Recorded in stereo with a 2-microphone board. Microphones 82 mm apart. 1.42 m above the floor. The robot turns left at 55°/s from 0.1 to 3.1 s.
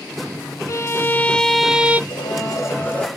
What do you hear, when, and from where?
0.7 s a violin: 50° left, 1.1 m; by 2.0 s 20° right, 1.1 m
2.1 s a blender: 65° left, 3.5 m; by 3.1 s 10° left, 3.5 m